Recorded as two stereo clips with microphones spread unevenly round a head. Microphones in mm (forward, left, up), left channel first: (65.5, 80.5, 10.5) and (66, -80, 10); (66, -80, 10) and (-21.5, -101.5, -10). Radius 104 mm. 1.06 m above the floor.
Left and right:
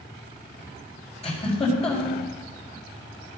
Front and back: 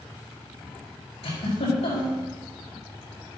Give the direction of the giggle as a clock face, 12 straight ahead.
11 o'clock.